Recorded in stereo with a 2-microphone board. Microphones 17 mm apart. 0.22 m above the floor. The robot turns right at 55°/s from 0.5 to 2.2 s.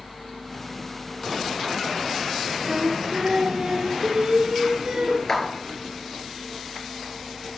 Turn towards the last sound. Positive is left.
turn(degrees=30)  # may be behind; listen again after turning